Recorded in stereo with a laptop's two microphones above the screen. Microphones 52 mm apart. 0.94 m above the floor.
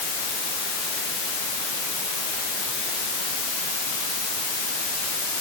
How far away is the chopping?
No chopping in this recording.